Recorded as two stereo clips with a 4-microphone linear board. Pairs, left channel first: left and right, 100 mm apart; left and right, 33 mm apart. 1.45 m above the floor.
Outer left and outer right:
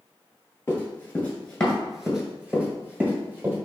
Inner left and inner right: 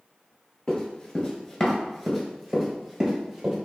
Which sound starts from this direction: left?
Running footsteps, at 0.7 s.